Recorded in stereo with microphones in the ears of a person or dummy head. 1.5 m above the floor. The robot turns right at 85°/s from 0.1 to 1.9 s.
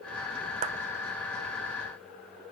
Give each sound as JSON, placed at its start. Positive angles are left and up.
{"t": 0.6, "sound": "a clap", "side_deg": -40, "distance_m": 0.7}